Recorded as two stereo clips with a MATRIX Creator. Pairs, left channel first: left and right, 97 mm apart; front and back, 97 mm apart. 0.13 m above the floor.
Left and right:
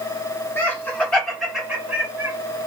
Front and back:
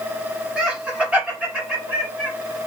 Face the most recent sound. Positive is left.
turn(degrees=-120)